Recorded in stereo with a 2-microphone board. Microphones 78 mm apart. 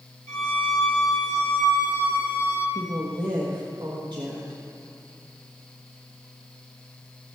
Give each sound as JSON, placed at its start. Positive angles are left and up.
{"t": 0.3, "sound": "a violin", "side_deg": 30, "distance_m": 3.0}
{"t": 2.8, "sound": "a woman speaking", "side_deg": -65, "distance_m": 1.4}